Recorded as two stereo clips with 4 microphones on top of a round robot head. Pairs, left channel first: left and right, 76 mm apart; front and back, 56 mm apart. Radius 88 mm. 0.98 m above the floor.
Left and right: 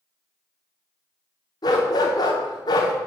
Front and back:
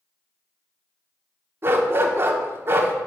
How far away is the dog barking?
About 1.0 m.